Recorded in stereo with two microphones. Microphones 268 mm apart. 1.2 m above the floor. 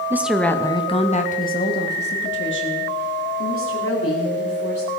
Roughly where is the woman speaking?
Centre.